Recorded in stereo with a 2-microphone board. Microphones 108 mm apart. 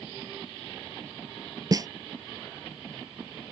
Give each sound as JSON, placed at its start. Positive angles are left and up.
{"t": 1.7, "sound": "a snare drum", "side_deg": -35}